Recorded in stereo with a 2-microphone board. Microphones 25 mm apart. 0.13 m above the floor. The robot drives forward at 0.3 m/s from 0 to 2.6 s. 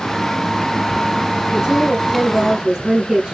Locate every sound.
1.5 s a woman speaking: 15° right (ahead or behind), 1.1 m; by 3.4 s 10° right (ahead or behind), 1.3 m